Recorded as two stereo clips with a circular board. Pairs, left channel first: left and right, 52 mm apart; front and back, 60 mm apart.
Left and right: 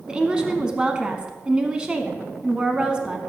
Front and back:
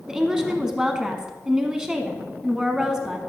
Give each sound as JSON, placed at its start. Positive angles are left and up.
{"t": 0.1, "sound": "a woman speaking", "azimuth_deg": -120, "distance_m": 1.0}